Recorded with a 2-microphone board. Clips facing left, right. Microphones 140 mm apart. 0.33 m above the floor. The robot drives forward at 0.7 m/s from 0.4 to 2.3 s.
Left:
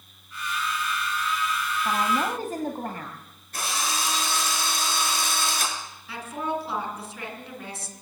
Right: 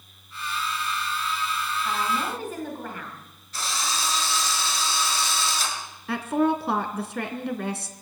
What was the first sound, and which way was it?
A woman speaking, 40° left (ahead or behind).